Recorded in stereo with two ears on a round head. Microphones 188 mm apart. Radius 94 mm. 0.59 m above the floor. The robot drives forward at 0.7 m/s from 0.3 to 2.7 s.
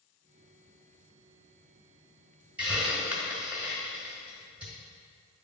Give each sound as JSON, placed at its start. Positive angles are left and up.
{"t": 2.6, "sound": "a hiss", "side_deg": -5, "distance_m": 1.7}